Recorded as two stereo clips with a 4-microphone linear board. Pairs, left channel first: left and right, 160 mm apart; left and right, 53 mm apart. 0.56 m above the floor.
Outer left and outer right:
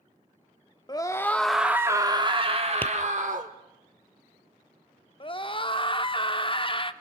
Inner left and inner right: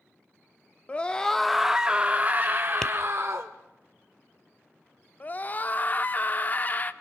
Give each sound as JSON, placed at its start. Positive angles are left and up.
{"t": 0.9, "sound": "a scream", "side_deg": 30, "distance_m": 0.9}
{"t": 2.8, "sound": "tapping", "side_deg": 15, "distance_m": 0.6}
{"t": 5.2, "sound": "a scream", "side_deg": 35, "distance_m": 1.1}